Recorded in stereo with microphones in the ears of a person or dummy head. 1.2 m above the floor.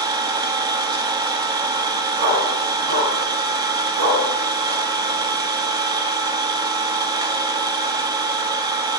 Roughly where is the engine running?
Right.